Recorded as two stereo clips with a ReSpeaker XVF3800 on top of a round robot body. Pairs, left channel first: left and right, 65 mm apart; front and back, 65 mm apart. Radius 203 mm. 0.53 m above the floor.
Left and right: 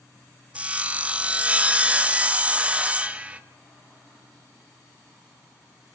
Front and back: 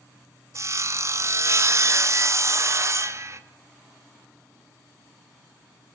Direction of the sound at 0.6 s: 155° right.